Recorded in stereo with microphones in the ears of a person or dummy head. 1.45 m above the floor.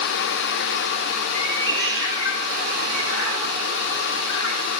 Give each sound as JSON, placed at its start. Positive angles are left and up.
{"t": 1.3, "sound": "a cat meowing", "side_deg": 60, "distance_m": 6.0}